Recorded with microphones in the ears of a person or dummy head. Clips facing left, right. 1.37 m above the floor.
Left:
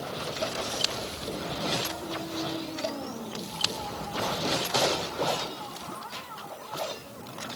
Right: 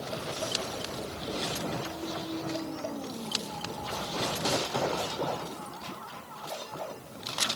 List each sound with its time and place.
Only background noise.